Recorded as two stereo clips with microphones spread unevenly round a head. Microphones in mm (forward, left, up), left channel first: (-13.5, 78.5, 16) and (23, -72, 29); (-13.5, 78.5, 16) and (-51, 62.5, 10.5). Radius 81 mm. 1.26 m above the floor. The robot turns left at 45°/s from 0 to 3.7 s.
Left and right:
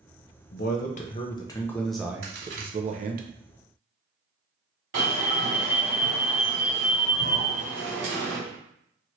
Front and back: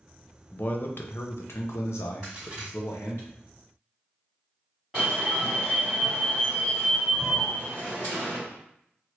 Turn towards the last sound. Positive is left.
turn(degrees=-75)